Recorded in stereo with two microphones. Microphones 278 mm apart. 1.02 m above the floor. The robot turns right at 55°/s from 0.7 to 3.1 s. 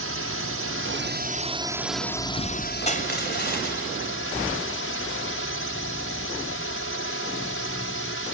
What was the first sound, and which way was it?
A drone, 70° right.